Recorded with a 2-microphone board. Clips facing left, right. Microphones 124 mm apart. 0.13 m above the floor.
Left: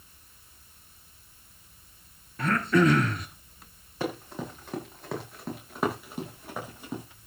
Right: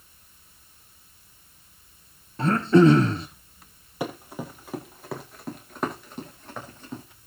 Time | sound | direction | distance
2.4 | throat clearing | 25° right (ahead or behind) | 1.8 m
4.0 | running footsteps | 10° right (ahead or behind) | 7 m